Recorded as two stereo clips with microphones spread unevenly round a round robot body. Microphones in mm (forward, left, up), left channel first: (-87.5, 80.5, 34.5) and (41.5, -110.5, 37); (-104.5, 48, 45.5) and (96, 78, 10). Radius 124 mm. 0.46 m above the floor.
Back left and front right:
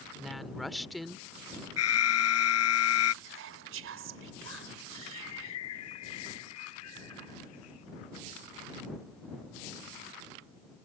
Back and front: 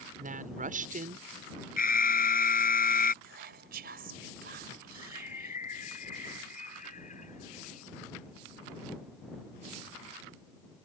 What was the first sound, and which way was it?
A woman speaking, 35° left.